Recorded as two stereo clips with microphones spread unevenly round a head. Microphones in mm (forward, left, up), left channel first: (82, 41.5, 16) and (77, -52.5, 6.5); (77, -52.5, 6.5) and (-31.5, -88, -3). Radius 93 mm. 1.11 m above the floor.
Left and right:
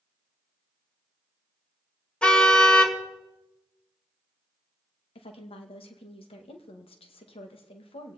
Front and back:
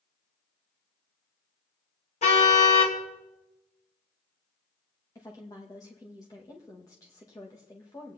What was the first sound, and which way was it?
A car horn, 10° left.